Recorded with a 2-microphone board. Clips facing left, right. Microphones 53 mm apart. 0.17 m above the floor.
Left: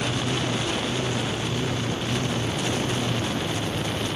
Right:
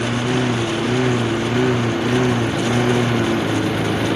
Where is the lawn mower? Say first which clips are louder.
Right 7 dB; 60° right (ahead or behind); by 4.2 s 85° right.